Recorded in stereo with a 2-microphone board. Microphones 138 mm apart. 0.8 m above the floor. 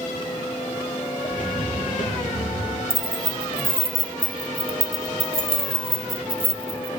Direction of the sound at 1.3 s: 75° left (ahead or behind).